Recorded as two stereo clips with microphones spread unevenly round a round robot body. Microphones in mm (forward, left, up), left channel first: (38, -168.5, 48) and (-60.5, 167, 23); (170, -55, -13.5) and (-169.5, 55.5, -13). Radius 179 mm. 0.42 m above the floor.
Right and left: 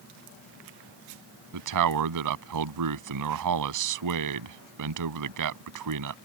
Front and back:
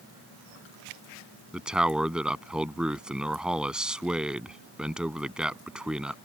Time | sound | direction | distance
1.5 | a man speaking | 75° left | ?